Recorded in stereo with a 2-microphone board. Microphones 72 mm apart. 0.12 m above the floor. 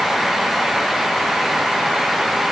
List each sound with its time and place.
Only background noise.